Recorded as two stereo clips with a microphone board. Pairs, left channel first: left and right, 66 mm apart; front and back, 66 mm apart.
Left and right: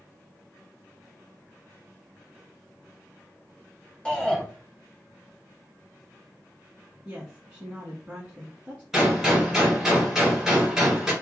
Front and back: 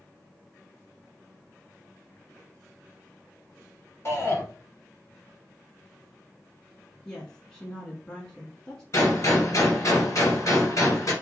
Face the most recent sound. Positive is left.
turn(degrees=-5)